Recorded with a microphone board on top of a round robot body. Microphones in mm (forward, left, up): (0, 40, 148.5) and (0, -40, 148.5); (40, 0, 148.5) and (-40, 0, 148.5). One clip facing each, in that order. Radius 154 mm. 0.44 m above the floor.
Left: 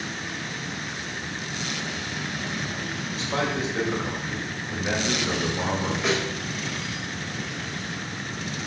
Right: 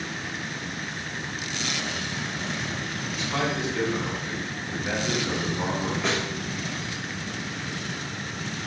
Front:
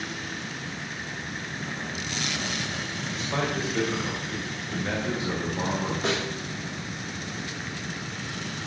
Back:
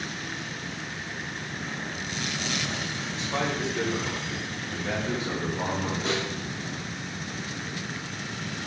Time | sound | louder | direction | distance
3.1 | a man speaking | left 1 dB, front 1 dB | 35° left | 3 m
6.0 | a snare drum | left 3 dB, front 2 dB | 5° left | 2.5 m